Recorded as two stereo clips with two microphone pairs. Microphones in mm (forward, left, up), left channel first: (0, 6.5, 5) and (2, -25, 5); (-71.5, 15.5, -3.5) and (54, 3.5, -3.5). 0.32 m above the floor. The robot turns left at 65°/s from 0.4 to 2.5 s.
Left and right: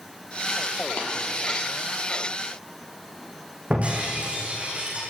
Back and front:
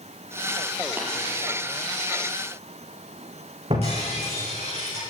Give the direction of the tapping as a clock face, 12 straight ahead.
10 o'clock.